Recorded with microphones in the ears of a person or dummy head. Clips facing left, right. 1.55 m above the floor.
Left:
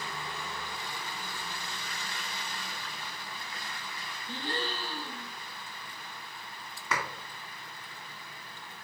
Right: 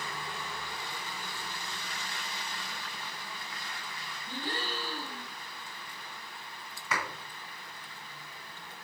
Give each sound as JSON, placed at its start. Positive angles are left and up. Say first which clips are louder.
{"t": 4.3, "sound": "a gasp", "louder": "left 2 dB", "side_deg": 0, "distance_m": 2.5}
{"t": 6.9, "sound": "a clap", "louder": "left 1 dB", "side_deg": 50, "distance_m": 1.8}